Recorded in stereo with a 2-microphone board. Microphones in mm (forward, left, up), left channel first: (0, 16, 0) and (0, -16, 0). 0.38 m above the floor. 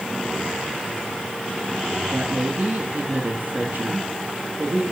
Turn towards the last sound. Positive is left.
turn(degrees=-60)  # may be behind; listen again after turning